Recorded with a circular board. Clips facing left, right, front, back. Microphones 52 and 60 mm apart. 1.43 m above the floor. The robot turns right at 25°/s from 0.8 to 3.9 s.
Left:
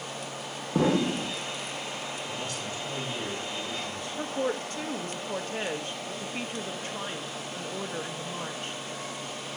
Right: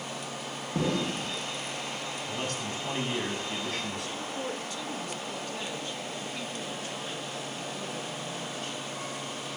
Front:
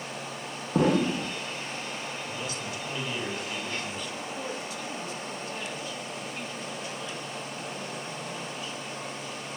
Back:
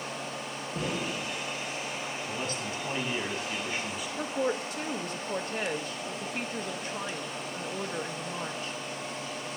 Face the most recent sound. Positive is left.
turn(degrees=140)